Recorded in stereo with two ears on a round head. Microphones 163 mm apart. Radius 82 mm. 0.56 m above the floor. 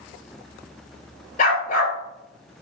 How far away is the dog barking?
About 2.5 m.